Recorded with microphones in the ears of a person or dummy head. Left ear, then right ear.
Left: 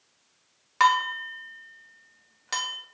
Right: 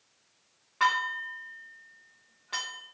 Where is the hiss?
No hiss in this recording.